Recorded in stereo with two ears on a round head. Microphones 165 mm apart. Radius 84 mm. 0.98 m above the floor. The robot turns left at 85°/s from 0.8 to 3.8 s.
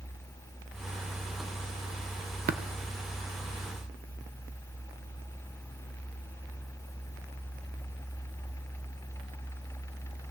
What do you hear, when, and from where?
2.5 s tapping: 50° right (ahead or behind), 0.6 m; by 2.6 s 45° right (ahead or behind), 0.6 m